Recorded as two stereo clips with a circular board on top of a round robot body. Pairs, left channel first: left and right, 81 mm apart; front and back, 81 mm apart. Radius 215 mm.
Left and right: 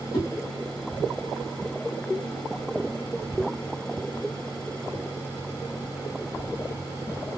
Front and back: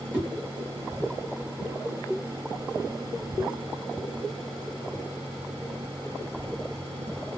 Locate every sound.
0.1 s a whoosh: 105° left, 1.5 m